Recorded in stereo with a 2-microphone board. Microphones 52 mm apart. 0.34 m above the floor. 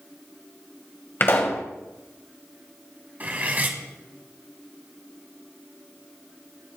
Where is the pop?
45° left (ahead or behind), 1.9 m.